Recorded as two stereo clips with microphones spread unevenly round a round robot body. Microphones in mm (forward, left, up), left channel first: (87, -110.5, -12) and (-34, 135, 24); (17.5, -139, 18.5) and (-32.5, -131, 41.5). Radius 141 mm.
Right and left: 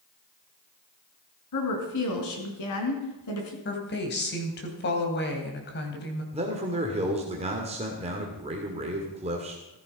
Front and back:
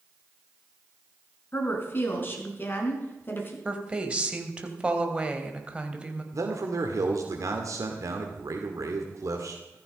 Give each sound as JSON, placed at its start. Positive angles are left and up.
{"t": 1.5, "sound": "a woman speaking", "azimuth_deg": -50, "distance_m": 5.0}
{"t": 3.6, "sound": "a woman speaking", "azimuth_deg": -115, "distance_m": 3.0}
{"t": 6.3, "sound": "a man speaking", "azimuth_deg": -175, "distance_m": 1.9}